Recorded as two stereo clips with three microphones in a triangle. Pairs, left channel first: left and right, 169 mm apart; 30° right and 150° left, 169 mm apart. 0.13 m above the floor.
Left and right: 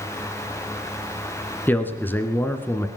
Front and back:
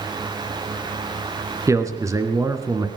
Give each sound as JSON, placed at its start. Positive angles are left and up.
{"t": 1.7, "sound": "a man speaking", "azimuth_deg": 140, "distance_m": 1.7}